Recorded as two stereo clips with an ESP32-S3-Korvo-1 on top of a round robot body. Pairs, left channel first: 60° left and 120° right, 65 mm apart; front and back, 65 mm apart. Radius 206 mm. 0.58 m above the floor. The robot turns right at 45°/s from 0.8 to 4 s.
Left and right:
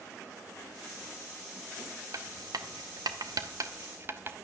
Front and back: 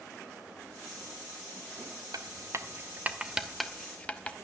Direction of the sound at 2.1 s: 155° right.